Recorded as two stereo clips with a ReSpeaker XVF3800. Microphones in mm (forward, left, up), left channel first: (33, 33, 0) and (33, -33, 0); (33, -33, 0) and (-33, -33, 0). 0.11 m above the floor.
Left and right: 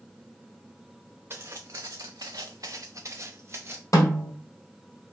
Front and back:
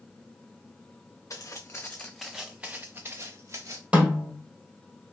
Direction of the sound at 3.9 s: 110° left.